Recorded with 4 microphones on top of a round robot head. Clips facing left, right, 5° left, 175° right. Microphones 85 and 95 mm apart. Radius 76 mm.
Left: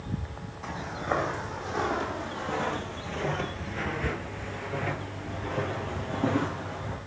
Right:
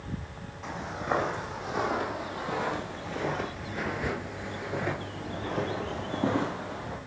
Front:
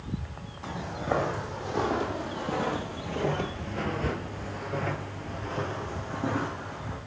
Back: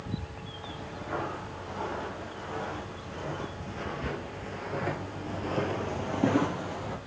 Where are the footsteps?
5° right, 3.5 m; by 7.0 s 170° right, 2 m.